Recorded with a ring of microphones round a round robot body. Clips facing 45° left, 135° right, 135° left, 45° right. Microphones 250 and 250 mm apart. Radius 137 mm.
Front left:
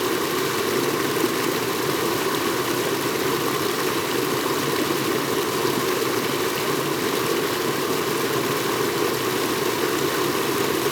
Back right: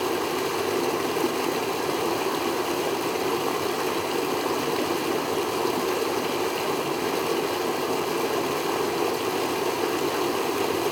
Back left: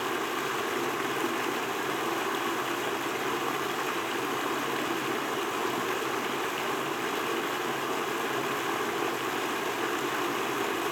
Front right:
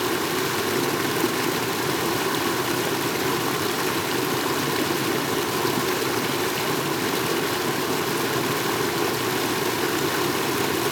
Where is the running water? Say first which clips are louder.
Front left 3 dB, front right 8 dB; 20° right, 0.7 m.